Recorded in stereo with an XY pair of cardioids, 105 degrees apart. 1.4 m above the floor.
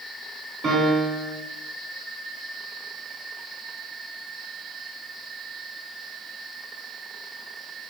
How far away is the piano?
About 1.5 m.